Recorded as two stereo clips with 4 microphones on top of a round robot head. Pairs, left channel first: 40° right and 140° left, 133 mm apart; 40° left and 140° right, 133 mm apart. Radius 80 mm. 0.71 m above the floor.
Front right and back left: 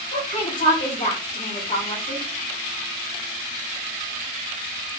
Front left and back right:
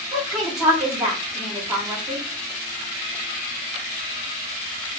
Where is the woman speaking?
50° right, 1.8 m.